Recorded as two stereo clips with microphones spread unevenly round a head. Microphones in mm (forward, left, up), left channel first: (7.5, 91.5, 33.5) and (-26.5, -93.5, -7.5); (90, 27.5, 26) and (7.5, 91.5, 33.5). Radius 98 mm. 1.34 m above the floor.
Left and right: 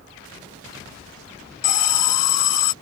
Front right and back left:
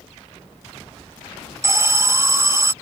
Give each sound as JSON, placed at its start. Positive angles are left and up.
{"t": 1.6, "sound": "an alarm", "azimuth_deg": 80}